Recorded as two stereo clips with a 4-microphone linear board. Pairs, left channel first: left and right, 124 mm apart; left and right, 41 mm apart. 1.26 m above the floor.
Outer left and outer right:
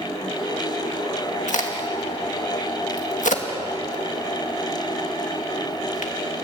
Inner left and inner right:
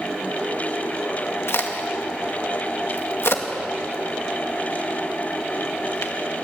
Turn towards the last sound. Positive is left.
turn(degrees=80)